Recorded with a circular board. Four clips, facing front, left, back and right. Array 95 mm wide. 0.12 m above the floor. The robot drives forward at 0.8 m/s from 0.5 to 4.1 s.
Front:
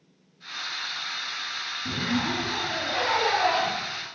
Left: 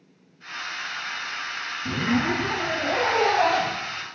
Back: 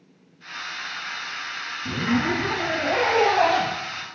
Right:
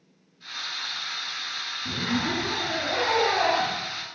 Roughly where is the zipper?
Left.